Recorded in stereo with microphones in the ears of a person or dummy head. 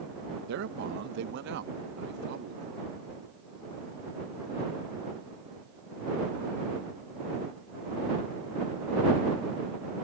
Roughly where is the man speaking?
Right.